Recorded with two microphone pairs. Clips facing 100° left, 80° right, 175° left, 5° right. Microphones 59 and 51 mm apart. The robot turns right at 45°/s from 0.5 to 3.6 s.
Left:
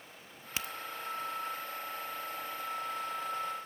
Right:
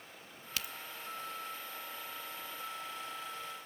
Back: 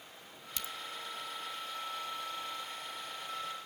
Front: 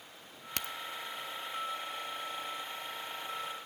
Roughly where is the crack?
Ahead left.